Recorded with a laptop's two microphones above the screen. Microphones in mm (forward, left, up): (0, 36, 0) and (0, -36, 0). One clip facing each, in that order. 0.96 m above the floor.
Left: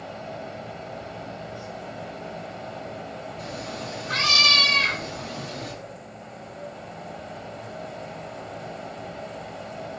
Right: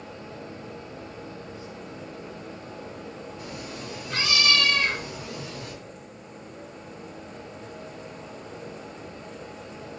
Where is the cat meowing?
55° left (ahead or behind), 4 m.